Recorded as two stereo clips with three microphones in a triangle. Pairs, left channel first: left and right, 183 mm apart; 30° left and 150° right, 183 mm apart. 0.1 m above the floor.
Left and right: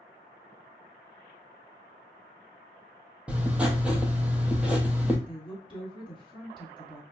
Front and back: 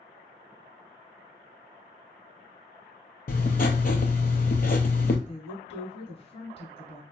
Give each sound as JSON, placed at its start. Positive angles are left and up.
{"t": 3.3, "sound": "writing", "azimuth_deg": -10, "distance_m": 0.5}
{"t": 5.3, "sound": "a woman speaking", "azimuth_deg": 55, "distance_m": 1.3}